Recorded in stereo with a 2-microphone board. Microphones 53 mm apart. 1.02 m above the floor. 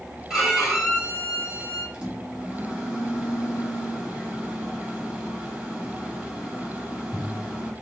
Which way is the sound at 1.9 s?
15° right (ahead or behind).